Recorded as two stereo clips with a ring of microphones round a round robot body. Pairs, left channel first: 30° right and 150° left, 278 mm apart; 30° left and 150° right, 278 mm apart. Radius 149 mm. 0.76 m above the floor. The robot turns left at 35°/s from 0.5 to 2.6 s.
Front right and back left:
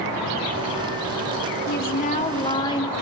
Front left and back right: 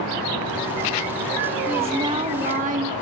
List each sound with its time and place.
1.7 s a woman speaking: 65° right, 1.0 m; by 2.9 s 100° right, 1.0 m